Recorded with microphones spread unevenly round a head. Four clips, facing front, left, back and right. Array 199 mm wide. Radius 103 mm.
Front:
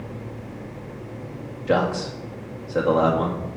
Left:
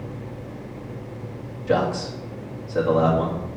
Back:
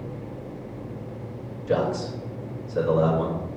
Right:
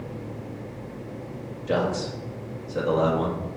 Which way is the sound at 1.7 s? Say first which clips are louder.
Left 3 dB, front 2 dB; 10° left.